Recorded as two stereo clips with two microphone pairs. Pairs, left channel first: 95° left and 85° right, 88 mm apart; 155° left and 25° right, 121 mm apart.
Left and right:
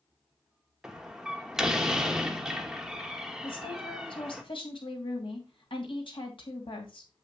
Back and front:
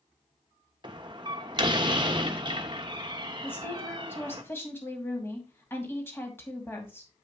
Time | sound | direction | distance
0.8 | a door slam | 5° right | 1.1 m
3.4 | a woman speaking | 85° left | 2.5 m